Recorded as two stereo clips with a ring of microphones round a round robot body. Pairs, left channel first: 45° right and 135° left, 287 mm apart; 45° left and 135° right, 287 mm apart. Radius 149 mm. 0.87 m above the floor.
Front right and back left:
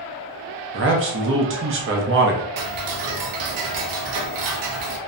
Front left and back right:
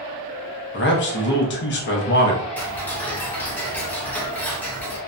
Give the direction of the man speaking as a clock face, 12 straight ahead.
9 o'clock.